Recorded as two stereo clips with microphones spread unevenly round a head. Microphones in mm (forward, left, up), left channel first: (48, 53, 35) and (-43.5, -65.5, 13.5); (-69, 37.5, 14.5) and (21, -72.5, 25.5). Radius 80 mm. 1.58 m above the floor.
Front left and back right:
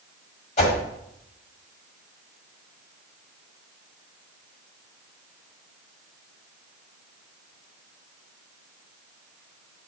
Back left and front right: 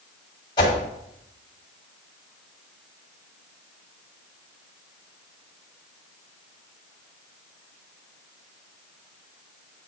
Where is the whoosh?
70° left, 1.9 m.